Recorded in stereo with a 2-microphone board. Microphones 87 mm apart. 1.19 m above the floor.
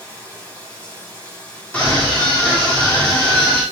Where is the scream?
15° left (ahead or behind), 3 m.